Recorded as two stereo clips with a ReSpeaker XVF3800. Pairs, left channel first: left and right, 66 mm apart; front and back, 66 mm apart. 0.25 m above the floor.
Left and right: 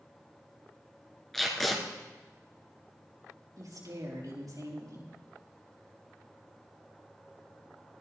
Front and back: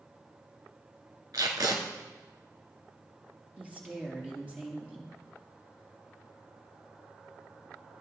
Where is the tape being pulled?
175° left, 2 m.